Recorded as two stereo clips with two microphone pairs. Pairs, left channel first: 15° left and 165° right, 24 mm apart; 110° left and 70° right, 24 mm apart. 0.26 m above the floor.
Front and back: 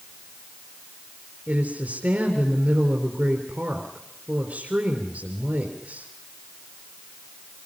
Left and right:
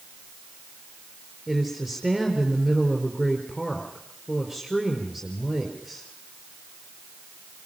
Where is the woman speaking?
155° right, 4 m.